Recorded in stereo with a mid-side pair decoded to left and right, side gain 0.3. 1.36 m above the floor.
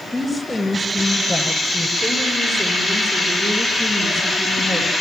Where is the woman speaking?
5° left, 8.5 m; by 4.9 s 25° right, 8.5 m.